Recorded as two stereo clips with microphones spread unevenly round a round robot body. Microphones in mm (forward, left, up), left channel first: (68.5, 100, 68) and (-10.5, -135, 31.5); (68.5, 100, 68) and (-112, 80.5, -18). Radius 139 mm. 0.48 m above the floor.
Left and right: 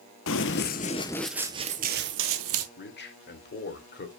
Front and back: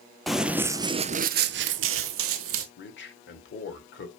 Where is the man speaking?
30° left, 1.8 m.